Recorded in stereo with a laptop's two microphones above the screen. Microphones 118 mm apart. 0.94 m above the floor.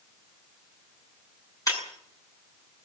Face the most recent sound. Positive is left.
turn(degrees=30)  # may be behind; listen again after turning